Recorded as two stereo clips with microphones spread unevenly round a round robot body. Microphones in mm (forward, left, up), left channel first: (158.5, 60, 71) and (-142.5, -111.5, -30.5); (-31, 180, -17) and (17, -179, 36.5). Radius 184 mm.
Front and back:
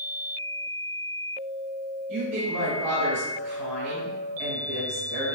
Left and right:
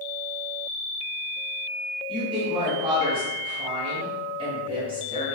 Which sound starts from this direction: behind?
A woman speaking, at 2.1 s.